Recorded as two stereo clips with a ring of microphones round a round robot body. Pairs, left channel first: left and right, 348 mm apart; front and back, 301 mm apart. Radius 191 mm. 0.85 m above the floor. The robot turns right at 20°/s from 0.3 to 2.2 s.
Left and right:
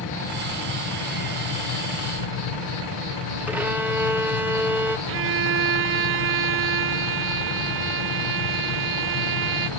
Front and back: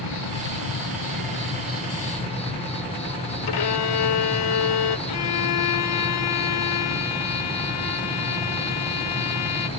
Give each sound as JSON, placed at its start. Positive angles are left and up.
{"t": 0.0, "sound": "an insect", "azimuth_deg": 35, "distance_m": 4.0}
{"t": 3.5, "sound": "a violin", "azimuth_deg": -5, "distance_m": 1.3}
{"t": 5.1, "sound": "a violin", "azimuth_deg": -35, "distance_m": 0.7}